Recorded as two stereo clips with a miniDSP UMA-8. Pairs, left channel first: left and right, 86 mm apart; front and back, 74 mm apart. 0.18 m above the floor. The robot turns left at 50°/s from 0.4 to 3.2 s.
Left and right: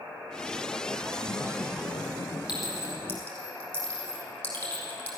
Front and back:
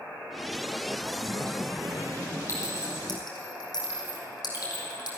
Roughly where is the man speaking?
Behind.